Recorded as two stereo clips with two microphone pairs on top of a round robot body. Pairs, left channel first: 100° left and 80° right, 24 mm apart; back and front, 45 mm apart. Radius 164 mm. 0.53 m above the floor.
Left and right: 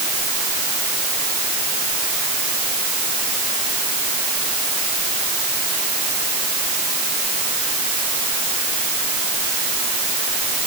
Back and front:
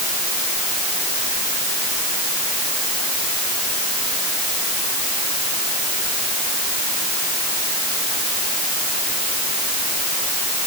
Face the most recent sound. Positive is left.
No sound to turn to.